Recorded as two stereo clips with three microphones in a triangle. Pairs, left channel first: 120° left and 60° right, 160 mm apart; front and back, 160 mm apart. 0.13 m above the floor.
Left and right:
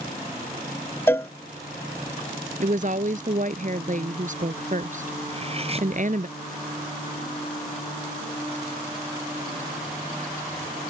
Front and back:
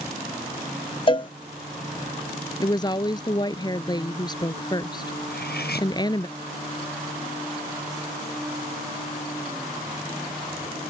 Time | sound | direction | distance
1.1 | a cowbell | 45° left | ?
2.6 | a woman speaking | 55° right | ?
5.3 | cutlery clinking | 10° right | ?